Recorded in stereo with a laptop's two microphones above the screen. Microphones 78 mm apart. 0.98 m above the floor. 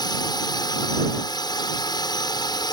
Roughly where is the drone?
Left.